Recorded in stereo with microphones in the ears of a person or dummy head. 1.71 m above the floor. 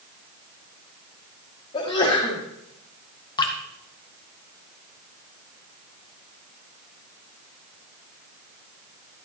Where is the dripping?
25° left (ahead or behind), 1.1 m.